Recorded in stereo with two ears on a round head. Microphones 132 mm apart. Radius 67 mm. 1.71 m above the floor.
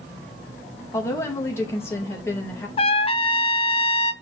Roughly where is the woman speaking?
Centre.